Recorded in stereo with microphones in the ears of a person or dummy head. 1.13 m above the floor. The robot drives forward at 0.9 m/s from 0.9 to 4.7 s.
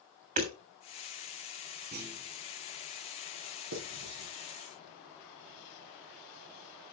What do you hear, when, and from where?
0.4 s hammering: 40° right (ahead or behind), 3 m
1.9 s a clunk: 50° right (ahead or behind), 2.5 m; by 2.4 s 45° right (ahead or behind), 3 m
3.7 s writing: 75° right (ahead or behind), 5.5 m; by 4.3 s 70° right (ahead or behind), 6 m